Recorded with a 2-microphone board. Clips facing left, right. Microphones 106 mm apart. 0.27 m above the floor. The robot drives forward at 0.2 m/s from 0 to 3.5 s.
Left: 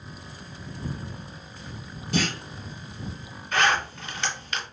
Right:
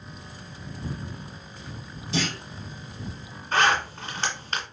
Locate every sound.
2.1 s a clunk: 60° left (ahead or behind), 2 m
3.5 s a zipper: 40° right (ahead or behind), 1.7 m